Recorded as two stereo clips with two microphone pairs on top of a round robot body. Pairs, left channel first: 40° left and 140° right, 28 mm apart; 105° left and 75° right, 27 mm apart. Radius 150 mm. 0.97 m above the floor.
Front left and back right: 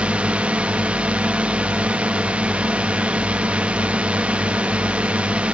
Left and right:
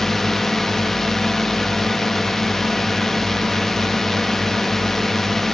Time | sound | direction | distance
0.0 | a drone | straight behind | ?